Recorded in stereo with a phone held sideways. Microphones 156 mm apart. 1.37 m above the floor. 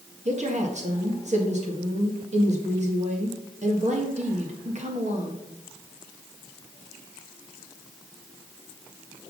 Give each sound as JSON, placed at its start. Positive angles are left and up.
{"t": 0.2, "sound": "a woman speaking", "side_deg": -50, "distance_m": 1.7}